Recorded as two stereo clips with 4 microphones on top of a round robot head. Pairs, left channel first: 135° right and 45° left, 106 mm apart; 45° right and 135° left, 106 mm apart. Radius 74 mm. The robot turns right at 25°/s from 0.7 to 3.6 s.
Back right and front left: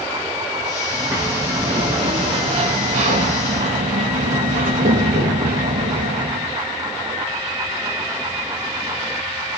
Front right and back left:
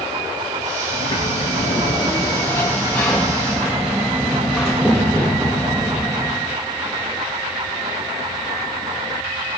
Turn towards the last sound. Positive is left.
turn(degrees=50)